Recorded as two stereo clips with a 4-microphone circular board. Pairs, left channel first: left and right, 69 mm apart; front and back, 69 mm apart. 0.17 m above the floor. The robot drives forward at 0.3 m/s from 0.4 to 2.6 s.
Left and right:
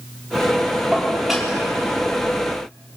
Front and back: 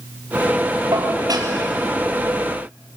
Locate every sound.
0.9 s dishes clattering: 175° right, 3.5 m